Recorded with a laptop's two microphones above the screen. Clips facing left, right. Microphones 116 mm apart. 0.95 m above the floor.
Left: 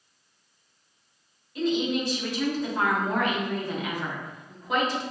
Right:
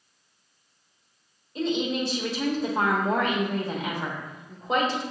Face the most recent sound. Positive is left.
turn(degrees=-30)  # may be behind; listen again after turning